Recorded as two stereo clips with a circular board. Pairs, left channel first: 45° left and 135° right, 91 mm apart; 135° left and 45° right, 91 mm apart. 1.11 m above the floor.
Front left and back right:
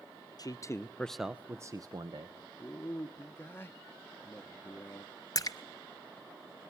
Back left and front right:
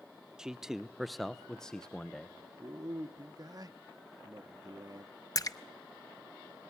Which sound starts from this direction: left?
A splash, at 5.3 s.